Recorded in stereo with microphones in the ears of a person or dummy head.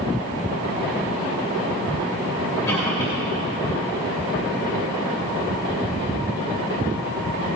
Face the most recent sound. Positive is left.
turn(degrees=10)  # may be behind; listen again after turning